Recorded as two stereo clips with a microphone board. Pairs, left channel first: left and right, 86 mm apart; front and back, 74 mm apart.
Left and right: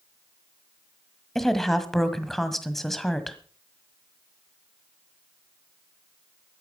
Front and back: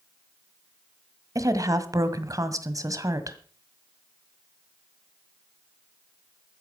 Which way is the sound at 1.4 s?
175° left.